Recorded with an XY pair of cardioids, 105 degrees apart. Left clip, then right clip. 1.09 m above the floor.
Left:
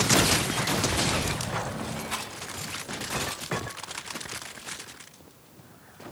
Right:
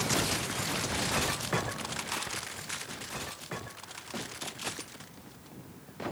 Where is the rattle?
40° left, 7.5 m.